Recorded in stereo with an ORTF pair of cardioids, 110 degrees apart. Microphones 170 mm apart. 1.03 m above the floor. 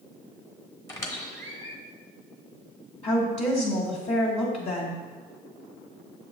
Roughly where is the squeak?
Ahead.